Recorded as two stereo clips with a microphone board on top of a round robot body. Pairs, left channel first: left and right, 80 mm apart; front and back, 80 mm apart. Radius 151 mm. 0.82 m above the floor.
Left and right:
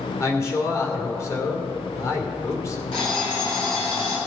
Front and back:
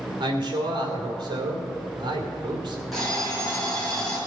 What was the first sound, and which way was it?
A man speaking, 145° left.